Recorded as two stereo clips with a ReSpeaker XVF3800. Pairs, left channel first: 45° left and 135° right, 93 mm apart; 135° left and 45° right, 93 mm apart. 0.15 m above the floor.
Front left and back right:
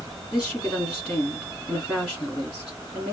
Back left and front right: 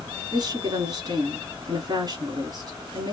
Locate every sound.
0.3 s a woman speaking: 45° right, 1.3 m